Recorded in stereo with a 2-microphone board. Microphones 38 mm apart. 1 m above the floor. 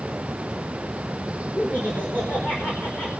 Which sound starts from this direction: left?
Laughter, at 1.6 s.